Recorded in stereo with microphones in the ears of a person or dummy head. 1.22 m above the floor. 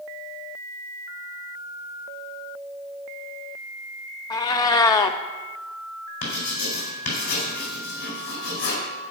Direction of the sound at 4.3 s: 20° left (ahead or behind).